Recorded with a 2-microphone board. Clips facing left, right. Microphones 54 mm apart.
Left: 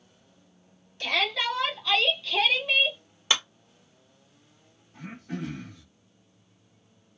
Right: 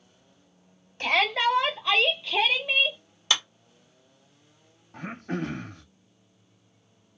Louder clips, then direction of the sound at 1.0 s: Right 4 dB; 40° right (ahead or behind).